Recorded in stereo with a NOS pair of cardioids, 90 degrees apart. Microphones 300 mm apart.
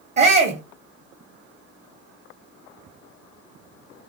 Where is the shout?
35° right, 0.8 m.